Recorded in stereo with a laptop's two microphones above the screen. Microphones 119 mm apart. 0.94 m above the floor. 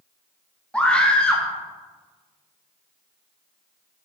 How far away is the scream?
About 1.1 m.